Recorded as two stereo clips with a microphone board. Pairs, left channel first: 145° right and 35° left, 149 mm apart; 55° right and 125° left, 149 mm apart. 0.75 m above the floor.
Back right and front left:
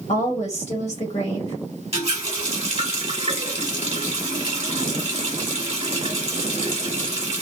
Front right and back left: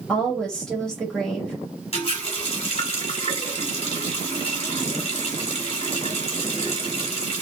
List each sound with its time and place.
0.1 s a woman speaking: 140° right, 1.5 m
1.9 s a running tap: 10° right, 1.4 m